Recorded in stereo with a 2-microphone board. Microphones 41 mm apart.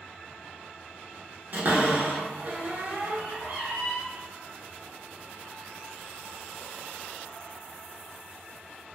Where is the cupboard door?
50° right (ahead or behind), 0.8 m.